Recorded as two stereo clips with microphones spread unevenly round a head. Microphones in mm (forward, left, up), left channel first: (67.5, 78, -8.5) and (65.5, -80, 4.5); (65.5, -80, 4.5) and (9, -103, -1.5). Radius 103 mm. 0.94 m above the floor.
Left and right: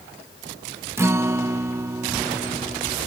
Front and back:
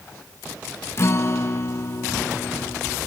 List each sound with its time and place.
1.0 s a guitar: 15° right